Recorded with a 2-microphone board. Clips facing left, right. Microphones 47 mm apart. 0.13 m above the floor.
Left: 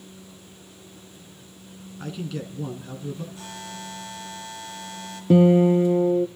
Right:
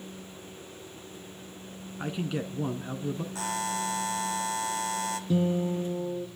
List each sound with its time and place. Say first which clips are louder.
2.0 s a man speaking: right 1 dB; 25° right (ahead or behind), 1.6 m
3.4 s a buzzer: right 7 dB; 85° right, 1.9 m
5.3 s a guitar: left 13 dB; 55° left (ahead or behind), 0.7 m